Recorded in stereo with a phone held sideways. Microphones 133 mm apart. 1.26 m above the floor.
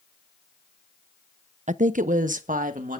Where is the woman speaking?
65° right (ahead or behind), 0.5 m; by 3.0 s 85° right, 2 m.